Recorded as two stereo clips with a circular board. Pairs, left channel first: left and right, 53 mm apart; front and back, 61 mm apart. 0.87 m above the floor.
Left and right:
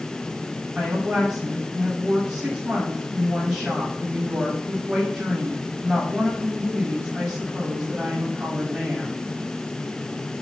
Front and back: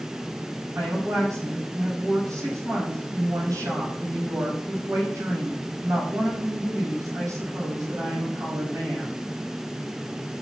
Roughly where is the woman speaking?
Behind.